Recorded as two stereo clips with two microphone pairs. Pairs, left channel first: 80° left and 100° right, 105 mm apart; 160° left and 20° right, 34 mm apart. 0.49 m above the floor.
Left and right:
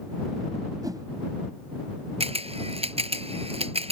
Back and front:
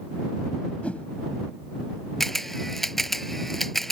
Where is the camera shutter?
115° right.